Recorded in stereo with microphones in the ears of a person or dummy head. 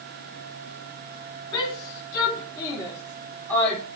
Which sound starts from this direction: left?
A shout, at 1.5 s.